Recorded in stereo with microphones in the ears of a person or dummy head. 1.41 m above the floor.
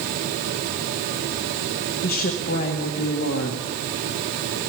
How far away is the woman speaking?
About 1.8 m.